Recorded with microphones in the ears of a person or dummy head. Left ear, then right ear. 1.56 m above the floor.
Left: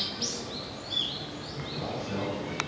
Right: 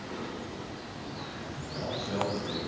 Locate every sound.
1.7 s a man speaking: 40° right (ahead or behind), 1.3 m